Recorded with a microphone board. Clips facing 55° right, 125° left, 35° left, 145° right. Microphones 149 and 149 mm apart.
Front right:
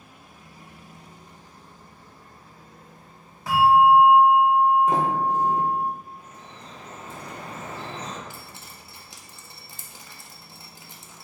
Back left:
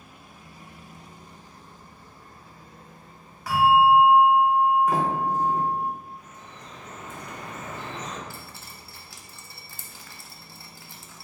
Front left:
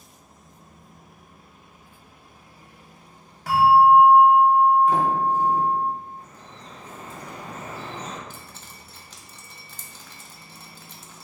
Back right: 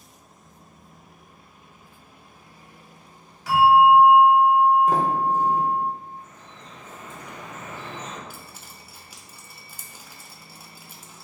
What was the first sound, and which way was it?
A bell, 5° left.